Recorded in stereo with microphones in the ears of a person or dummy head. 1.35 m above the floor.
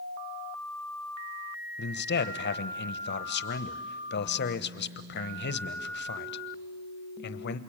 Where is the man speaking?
65° left (ahead or behind), 1.0 m.